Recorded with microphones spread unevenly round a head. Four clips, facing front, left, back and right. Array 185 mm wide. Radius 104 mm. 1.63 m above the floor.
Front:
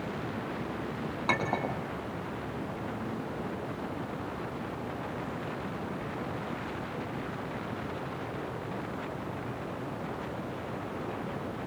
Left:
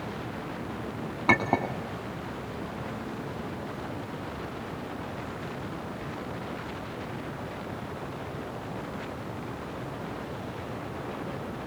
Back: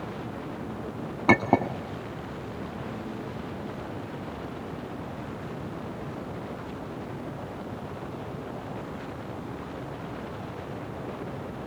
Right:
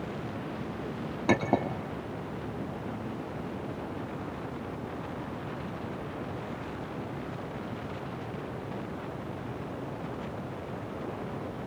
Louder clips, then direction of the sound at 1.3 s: Left 1 dB, back 9 dB; 170° right.